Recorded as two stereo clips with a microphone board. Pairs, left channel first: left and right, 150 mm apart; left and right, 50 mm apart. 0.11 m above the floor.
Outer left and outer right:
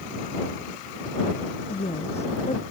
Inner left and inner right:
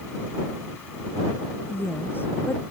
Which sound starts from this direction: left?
A woman speaking, at 1.7 s.